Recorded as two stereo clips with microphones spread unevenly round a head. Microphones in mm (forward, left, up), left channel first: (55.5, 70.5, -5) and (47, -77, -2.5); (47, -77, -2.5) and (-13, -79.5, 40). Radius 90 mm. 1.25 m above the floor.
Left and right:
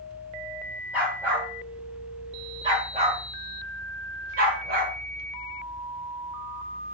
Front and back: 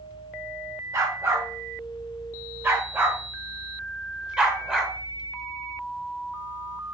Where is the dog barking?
175° right, 2.5 m; by 4.9 s 115° right, 1.8 m.